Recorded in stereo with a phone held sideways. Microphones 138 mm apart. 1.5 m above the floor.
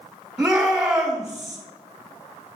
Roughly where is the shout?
Centre.